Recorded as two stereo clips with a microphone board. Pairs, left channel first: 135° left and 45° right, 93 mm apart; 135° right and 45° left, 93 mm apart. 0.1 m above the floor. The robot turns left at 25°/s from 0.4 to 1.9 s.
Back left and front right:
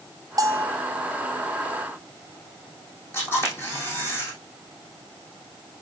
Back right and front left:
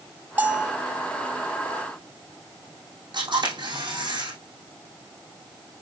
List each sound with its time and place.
0.4 s a bell: 20° right, 0.6 m; by 0.8 s 30° right, 0.6 m
3.1 s a camera shutter: 70° left, 4.5 m